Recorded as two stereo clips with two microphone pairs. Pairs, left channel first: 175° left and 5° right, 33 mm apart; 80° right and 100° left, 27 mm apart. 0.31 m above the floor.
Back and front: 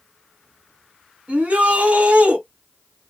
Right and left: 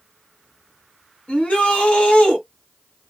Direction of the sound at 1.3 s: 45° right.